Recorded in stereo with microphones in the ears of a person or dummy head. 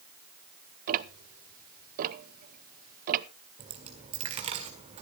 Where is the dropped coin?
30° right (ahead or behind), 1.6 m.